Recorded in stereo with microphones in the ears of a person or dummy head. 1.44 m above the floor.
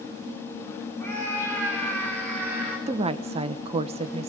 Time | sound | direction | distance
1.0 | a scream | 10° left (ahead or behind) | 9.5 m
2.9 | a woman speaking | 30° right (ahead or behind) | 1.1 m